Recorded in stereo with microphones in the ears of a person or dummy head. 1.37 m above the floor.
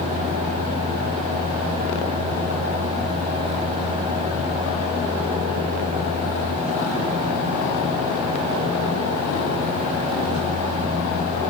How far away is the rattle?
I don't hear a rattle.